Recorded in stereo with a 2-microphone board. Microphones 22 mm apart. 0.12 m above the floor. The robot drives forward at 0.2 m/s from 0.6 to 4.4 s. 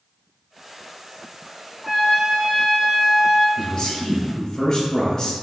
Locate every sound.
1.8 s a trumpet: 20° right (ahead or behind), 0.8 m; by 3.5 s 15° right (ahead or behind), 1.1 m
3.6 s a man speaking: 15° left (ahead or behind), 1.3 m